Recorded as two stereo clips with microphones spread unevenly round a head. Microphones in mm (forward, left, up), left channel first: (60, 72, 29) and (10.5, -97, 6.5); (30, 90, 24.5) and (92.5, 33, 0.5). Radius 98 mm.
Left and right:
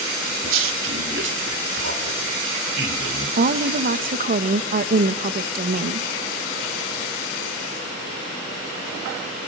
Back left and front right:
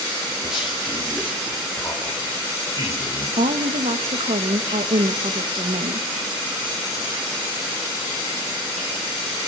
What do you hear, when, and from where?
0.4 s a man speaking: 130° right, 2.5 m; by 3.3 s 150° right, 5.5 m
3.4 s a woman speaking: 65° right, 1.1 m